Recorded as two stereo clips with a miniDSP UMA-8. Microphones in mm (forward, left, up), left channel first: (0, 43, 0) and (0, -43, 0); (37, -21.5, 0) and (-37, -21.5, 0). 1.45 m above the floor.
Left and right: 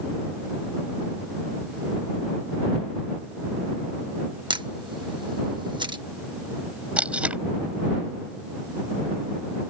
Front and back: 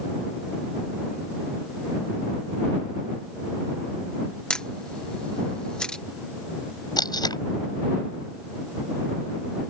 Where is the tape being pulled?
15° right.